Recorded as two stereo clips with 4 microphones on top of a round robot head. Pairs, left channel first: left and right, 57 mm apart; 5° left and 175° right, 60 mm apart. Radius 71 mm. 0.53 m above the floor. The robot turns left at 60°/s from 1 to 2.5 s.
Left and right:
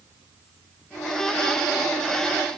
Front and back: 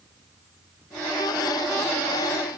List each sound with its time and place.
Only background noise.